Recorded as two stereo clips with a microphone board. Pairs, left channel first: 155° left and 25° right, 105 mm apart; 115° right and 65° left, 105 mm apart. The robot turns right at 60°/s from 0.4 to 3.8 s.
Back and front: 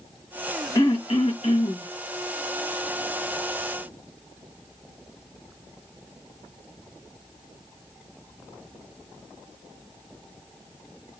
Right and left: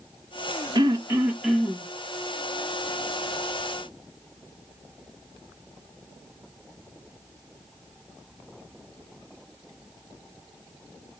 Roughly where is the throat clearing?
Behind left.